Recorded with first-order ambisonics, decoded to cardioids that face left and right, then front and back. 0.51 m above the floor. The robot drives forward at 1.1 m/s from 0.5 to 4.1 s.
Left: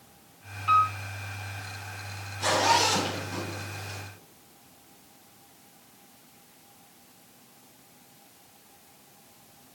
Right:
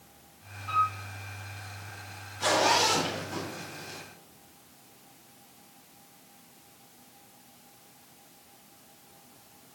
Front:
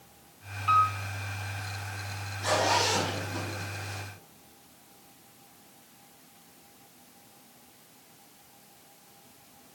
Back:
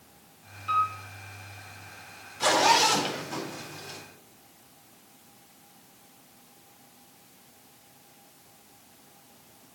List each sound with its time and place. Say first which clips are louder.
0.7 s a piano: left 5 dB, front 3 dB; 35° left, 1.8 m; by 1.0 s 40° left, 1.5 m
2.4 s a zipper: left 1 dB, back 5 dB; 170° right, 2.5 m; by 4.0 s 175° right, 4.5 m